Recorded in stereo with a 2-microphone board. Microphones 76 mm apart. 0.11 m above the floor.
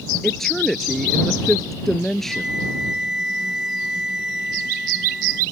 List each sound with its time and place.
0.2 s a woman speaking: 5° left (ahead or behind)
2.3 s a flute: 10° right (ahead or behind)